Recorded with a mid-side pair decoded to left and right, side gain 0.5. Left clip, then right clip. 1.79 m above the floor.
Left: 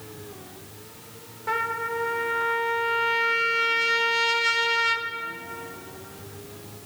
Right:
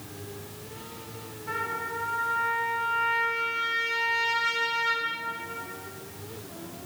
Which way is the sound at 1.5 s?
55° left.